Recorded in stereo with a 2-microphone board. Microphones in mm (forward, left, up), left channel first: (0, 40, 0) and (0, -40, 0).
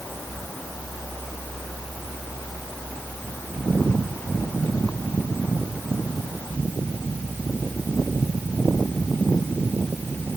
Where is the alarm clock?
No alarm clock in this recording.